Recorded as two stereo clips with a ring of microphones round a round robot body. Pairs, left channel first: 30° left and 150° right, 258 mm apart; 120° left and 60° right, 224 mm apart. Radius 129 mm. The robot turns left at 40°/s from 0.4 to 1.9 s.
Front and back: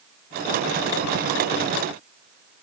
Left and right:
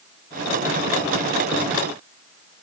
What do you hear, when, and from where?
Only background noise.